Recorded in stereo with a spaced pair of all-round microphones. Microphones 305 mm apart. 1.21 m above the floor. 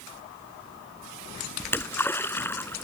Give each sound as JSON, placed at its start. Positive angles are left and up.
{"t": 1.6, "sound": "a splash", "side_deg": 5}